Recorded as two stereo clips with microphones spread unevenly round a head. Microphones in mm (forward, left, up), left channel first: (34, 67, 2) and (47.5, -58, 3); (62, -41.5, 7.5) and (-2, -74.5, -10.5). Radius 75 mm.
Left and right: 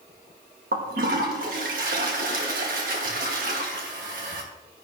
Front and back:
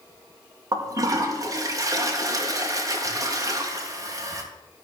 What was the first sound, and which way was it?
A toilet flushing, 110° right.